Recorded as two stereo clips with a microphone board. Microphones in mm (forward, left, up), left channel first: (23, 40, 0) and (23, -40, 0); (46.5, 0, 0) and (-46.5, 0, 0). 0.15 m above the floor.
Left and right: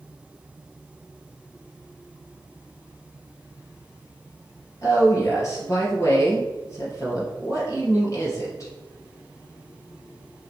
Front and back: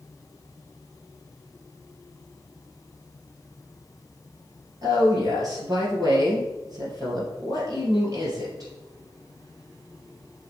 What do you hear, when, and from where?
4.8 s a woman speaking: 135° left, 3 m